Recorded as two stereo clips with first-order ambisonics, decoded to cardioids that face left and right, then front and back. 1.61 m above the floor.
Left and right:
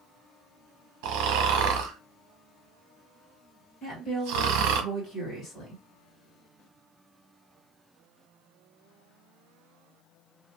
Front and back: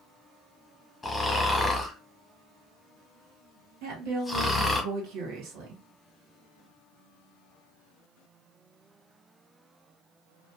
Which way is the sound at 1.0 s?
85° right.